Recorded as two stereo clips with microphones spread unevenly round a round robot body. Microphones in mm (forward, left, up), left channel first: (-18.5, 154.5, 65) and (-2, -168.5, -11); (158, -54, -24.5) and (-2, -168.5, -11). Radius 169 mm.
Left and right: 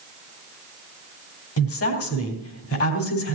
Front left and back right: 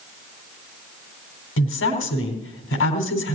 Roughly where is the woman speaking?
Ahead left.